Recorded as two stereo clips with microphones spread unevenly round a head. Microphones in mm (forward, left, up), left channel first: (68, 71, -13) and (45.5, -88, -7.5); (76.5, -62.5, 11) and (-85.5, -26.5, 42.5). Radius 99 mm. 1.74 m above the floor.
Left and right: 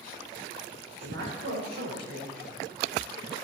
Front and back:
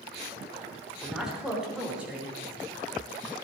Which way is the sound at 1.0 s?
105° right.